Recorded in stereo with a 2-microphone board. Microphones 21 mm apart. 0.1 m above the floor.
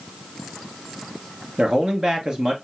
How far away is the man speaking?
About 1.3 m.